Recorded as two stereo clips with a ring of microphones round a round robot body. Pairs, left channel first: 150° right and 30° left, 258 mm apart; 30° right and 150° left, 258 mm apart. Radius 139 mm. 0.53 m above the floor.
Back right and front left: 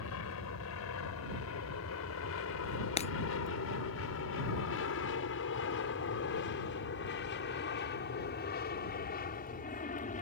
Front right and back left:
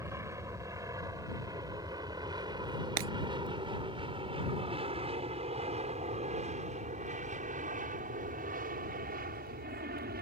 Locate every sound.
0.0 s an aircraft: 130° right; by 10.2 s 170° left
3.0 s breaking glass: 145° left